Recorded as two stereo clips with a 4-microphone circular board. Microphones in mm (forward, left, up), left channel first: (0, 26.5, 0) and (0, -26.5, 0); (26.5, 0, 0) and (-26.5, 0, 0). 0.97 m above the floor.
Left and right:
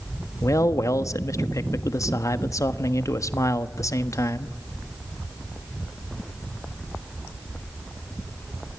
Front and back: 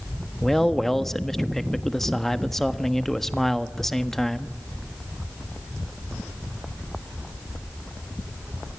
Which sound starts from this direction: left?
A man speaking, at 0.4 s.